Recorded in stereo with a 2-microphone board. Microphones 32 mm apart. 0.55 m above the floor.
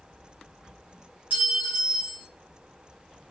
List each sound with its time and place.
1.3 s a clink: 55° right (ahead or behind), 1.6 m